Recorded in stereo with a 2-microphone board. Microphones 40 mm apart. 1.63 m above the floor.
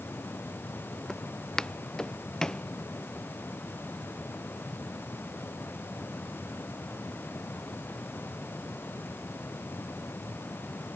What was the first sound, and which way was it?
Footsteps, 15° left (ahead or behind).